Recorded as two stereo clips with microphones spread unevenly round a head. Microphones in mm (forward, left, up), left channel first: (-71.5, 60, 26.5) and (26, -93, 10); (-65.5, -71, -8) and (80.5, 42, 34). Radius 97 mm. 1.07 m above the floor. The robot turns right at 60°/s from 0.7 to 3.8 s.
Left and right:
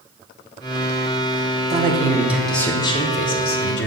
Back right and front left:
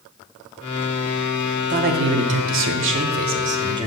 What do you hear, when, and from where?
1.7 s a man speaking: 15° right, 0.8 m; by 3.9 s 110° left, 0.8 m